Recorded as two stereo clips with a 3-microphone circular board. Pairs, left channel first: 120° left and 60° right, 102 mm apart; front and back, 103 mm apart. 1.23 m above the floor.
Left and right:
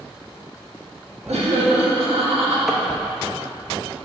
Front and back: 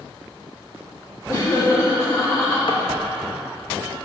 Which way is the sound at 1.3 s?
60° right.